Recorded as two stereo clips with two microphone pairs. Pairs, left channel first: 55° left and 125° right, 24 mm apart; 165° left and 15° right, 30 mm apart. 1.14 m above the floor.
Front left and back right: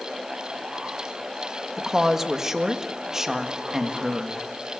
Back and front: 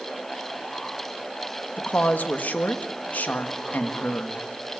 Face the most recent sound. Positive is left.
turn(degrees=165)